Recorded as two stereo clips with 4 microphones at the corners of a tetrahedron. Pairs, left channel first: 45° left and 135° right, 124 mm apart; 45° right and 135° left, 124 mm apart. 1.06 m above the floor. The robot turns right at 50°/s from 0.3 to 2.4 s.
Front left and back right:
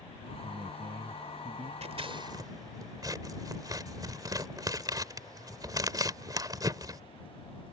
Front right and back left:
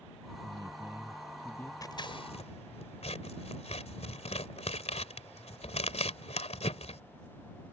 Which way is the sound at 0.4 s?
Straight behind.